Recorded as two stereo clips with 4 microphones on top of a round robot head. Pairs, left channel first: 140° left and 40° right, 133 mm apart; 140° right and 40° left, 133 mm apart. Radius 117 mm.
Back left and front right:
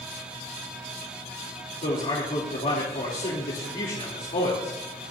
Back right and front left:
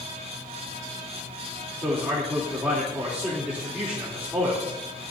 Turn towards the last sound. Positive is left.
turn(degrees=115)